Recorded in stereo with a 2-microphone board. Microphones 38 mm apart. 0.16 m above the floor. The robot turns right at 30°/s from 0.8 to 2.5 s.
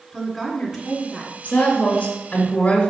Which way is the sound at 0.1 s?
Centre (ahead or behind).